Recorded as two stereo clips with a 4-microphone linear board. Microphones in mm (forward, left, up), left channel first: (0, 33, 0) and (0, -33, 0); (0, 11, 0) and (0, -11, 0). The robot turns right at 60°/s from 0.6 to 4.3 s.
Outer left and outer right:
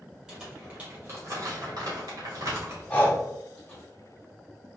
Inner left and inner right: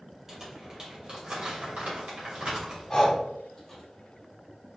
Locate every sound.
0.3 s crumpling: 10° right (ahead or behind), 2 m; by 3.8 s 20° left (ahead or behind), 2 m
2.9 s breathing: 20° left (ahead or behind), 1.1 m; by 3.2 s 35° left (ahead or behind), 1.1 m